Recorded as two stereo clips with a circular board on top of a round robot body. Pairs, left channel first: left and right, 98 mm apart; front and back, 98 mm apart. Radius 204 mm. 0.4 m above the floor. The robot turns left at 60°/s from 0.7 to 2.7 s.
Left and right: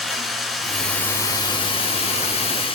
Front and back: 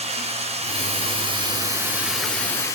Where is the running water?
Straight behind, 2 m; by 2.8 s 60° left, 2 m.